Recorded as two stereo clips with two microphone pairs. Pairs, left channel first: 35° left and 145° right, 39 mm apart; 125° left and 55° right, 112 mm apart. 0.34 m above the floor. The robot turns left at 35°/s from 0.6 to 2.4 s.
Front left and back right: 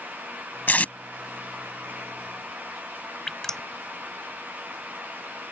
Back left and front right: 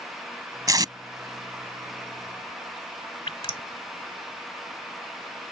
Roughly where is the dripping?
Left.